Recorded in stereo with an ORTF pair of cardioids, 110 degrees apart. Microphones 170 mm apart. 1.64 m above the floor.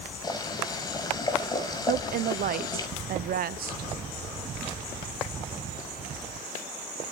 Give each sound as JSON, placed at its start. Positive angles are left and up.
{"t": 0.2, "sound": "boiling", "azimuth_deg": 20, "distance_m": 5.5}
{"t": 1.9, "sound": "a woman speaking", "azimuth_deg": -60, "distance_m": 0.8}